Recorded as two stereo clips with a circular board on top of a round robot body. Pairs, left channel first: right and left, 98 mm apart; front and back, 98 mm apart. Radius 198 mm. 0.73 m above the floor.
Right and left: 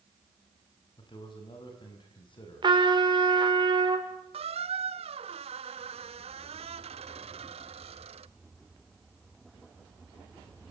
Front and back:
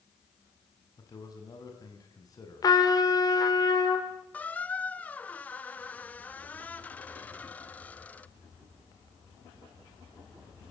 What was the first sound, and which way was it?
A man speaking, 50° right.